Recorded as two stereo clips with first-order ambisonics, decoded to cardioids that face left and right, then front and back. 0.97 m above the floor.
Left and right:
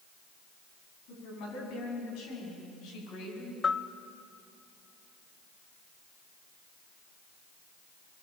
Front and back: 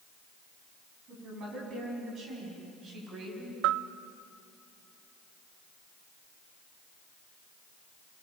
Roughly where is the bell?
Behind.